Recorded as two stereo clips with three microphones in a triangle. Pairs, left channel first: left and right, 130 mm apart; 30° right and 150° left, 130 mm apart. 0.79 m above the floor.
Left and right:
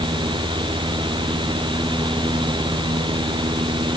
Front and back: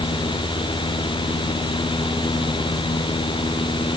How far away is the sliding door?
I don't hear a sliding door.